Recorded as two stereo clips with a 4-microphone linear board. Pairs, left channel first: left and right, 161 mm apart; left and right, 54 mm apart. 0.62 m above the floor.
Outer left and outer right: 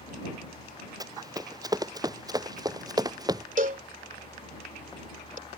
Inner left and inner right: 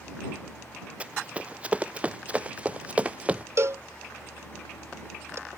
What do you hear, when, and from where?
1.0 s running footsteps: 20° right (ahead or behind)
3.6 s a cowbell: 55° right (ahead or behind)